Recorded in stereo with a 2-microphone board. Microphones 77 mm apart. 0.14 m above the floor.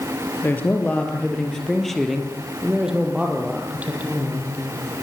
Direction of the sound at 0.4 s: 25° left (ahead or behind).